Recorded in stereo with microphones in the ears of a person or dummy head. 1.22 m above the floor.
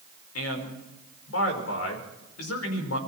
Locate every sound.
0.3 s a man speaking: 80° left, 4.5 m